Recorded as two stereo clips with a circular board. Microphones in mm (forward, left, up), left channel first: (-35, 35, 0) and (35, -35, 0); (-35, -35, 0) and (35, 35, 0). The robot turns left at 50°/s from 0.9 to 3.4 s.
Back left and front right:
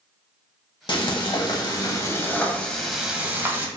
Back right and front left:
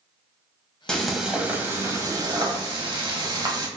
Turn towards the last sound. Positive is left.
turn(degrees=20)